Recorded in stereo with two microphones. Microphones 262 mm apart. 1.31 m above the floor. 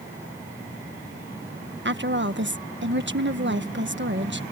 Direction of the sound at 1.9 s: 50° right (ahead or behind).